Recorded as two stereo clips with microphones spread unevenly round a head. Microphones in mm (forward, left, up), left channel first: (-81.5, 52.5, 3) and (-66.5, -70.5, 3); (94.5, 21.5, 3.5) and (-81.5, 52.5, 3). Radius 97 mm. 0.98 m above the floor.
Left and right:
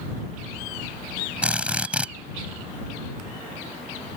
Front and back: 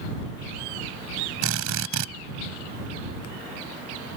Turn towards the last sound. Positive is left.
turn(degrees=-165)